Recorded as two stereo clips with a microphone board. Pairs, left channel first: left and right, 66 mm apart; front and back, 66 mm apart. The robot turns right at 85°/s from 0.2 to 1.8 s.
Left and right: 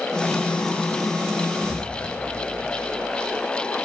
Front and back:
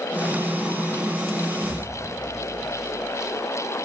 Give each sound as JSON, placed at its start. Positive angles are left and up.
{"t": 1.6, "sound": "an explosion", "azimuth_deg": 30, "distance_m": 0.7}